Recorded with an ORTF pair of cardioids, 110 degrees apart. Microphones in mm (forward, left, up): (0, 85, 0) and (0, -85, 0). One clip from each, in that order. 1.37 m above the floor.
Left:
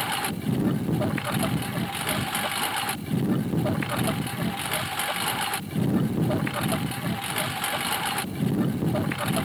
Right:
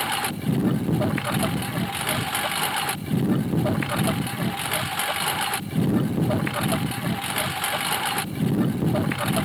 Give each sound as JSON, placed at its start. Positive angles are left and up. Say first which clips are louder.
{"t": 0.0, "sound": "a lawn mower", "louder": "right 2 dB", "azimuth_deg": -15}